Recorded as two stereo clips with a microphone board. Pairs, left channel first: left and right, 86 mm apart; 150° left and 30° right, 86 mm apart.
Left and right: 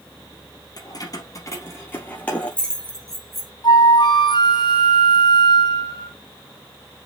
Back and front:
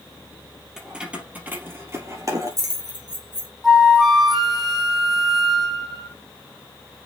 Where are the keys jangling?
55° left, 2.5 m; by 3.5 s straight ahead, 3.5 m.